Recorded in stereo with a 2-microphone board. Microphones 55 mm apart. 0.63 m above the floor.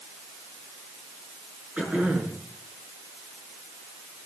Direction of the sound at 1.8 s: 20° right (ahead or behind).